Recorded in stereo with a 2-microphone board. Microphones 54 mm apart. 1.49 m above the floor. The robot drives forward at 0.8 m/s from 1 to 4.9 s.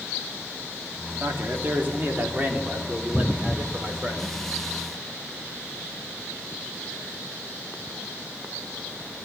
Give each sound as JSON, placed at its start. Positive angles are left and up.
{"t": 1.2, "sound": "a man speaking", "side_deg": -45, "distance_m": 3.5}